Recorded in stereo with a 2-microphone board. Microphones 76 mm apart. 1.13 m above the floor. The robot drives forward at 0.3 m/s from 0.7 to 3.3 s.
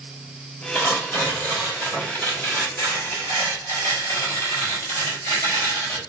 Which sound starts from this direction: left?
Tearing paper, at 0.8 s.